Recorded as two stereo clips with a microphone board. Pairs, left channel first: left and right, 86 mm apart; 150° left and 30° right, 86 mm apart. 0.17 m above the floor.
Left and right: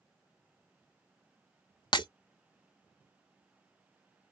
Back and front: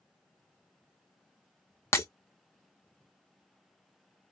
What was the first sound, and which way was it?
Breaking glass, 95° left.